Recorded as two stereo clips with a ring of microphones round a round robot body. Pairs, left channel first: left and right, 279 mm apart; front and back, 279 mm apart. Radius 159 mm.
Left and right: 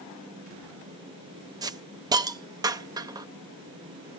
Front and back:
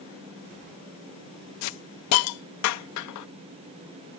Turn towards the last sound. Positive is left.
turn(degrees=-15)